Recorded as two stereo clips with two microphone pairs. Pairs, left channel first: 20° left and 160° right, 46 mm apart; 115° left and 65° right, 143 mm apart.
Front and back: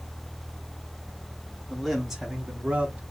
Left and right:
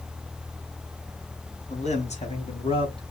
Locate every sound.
1.7 s a man speaking: 95° left, 2.0 m; by 3.1 s 160° left, 2 m